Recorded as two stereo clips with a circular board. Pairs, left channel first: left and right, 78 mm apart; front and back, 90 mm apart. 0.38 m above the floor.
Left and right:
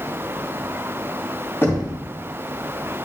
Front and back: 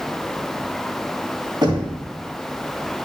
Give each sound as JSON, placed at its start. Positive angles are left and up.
{"t": 1.6, "sound": "knocking", "azimuth_deg": 150, "distance_m": 2.5}